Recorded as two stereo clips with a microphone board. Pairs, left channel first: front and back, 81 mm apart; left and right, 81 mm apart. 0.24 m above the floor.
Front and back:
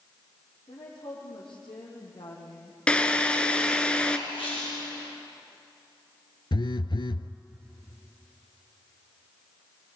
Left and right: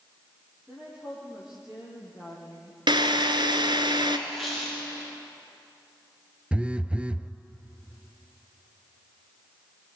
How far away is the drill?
About 1.7 m.